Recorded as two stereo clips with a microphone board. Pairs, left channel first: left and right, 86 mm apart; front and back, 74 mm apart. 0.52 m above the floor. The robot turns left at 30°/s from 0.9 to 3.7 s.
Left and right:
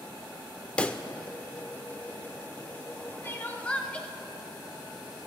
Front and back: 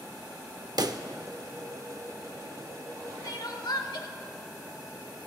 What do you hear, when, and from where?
0.8 s a pop: 165° left, 0.5 m; by 1.0 s 160° left, 0.5 m
3.2 s crying: 30° left, 1.0 m; by 4.1 s 15° left, 1.0 m